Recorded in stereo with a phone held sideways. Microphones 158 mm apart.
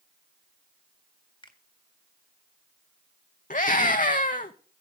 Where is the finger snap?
30° left (ahead or behind), 1.5 m.